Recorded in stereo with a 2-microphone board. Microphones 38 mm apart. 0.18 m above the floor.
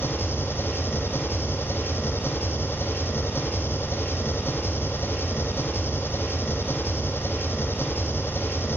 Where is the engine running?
80° left, 4 m.